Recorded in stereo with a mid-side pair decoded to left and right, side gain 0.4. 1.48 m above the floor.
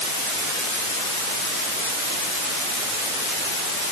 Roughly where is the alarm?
I don't hear an alarm.